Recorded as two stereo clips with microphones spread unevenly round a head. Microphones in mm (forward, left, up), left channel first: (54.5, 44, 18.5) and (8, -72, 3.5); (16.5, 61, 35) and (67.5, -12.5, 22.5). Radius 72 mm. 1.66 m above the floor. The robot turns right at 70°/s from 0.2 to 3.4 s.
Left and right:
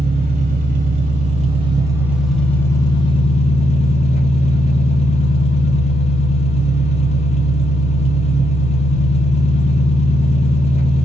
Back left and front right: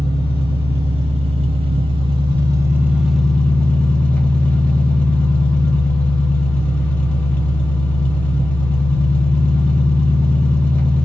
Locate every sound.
0.0 s an engine running: 165° right, 0.8 m; by 11.1 s 60° left, 0.8 m